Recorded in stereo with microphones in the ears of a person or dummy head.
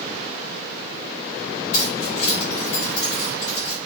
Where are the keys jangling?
75° left (ahead or behind), 1.8 m.